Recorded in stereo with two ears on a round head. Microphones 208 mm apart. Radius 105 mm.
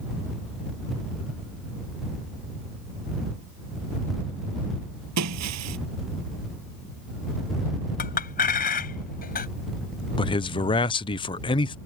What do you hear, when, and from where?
5.2 s breaking glass: 80° right
8.0 s a clink: 40° left (ahead or behind)
10.2 s a man speaking: 20° left (ahead or behind)